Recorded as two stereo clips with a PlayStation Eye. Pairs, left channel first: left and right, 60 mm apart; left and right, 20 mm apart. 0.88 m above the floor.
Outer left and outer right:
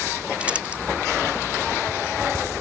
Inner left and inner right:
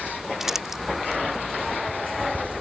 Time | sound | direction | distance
0.4 | crumpling | 25° right (ahead or behind) | ?